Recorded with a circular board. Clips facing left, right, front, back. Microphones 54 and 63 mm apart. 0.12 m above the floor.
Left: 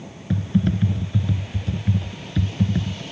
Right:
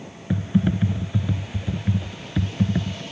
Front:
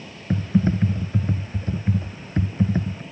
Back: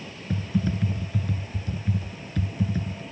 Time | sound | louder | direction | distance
0.3 | typing on a keyboard | even, front 6 dB | 20° right | ?